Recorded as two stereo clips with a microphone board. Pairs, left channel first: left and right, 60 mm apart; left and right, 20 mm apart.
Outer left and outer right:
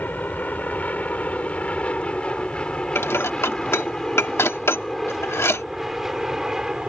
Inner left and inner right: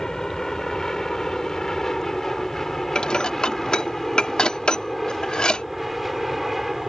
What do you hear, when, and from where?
0.0 s an aircraft: 30° left (ahead or behind); by 6.9 s 10° right (ahead or behind)
3.0 s dishes clattering: 45° left (ahead or behind)